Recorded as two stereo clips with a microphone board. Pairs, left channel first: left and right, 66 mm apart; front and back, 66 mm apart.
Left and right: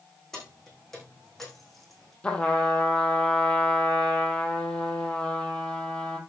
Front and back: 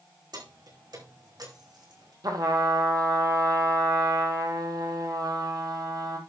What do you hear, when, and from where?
0.3 s keys jangling: 170° left, 5.5 m; by 2.1 s straight behind, 4 m
2.2 s a trumpet: 165° left, 1.7 m